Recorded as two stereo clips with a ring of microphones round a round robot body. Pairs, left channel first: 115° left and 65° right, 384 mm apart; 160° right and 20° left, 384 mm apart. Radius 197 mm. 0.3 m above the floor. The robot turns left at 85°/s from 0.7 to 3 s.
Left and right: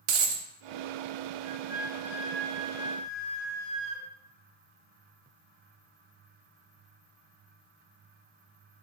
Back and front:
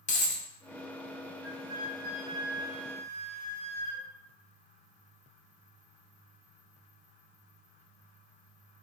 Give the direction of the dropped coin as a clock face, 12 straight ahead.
3 o'clock.